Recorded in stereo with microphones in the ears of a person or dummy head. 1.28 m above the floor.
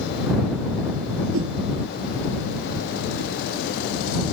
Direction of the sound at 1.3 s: 85° right.